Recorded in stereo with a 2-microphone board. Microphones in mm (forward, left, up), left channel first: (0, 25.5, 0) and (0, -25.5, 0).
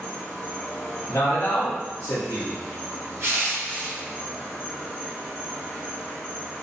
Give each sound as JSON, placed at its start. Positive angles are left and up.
{"t": 0.0, "sound": "an insect", "side_deg": 10, "distance_m": 1.5}
{"t": 1.1, "sound": "a man speaking", "side_deg": 55, "distance_m": 0.7}
{"t": 3.2, "sound": "crushing", "side_deg": -50, "distance_m": 0.8}